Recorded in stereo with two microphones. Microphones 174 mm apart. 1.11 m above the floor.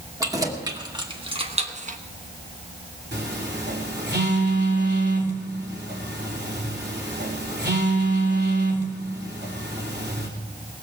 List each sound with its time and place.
0.2 s keys jangling: 20° right (ahead or behind), 2 m; by 2.0 s 45° right (ahead or behind), 1.0 m
3.1 s a phone buzzing: 70° right (ahead or behind), 3 m